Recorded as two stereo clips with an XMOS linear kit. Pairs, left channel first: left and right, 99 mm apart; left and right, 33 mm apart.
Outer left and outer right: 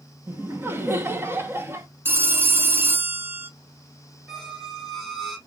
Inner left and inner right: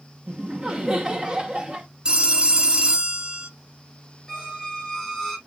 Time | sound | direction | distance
0.3 | laughter | 25° right (ahead or behind) | 0.7 m
2.0 | a phone ringing | 25° right (ahead or behind) | 0.6 m
4.3 | a squeak | centre (ahead or behind) | 1.4 m